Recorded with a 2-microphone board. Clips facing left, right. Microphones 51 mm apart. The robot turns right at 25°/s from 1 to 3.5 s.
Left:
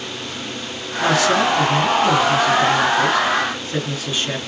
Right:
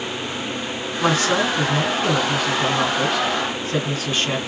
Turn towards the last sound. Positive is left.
turn(degrees=-65)